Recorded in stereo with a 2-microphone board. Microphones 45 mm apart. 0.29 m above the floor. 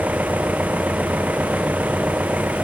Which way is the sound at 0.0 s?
40° right (ahead or behind).